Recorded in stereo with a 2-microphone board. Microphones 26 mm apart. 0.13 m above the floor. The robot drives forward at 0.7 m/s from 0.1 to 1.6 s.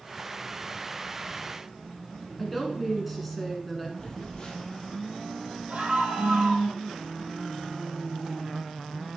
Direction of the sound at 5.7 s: 60° right (ahead or behind).